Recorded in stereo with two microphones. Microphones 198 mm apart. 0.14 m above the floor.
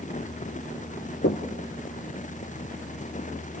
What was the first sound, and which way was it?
Knocking, 65° left (ahead or behind).